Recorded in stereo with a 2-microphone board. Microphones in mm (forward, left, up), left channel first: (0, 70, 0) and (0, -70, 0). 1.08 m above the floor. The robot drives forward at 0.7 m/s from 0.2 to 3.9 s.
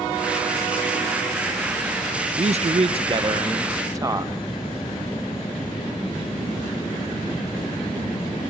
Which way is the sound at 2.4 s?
50° right (ahead or behind).